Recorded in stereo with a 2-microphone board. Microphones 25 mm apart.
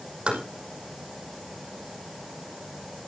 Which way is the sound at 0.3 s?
45° right (ahead or behind).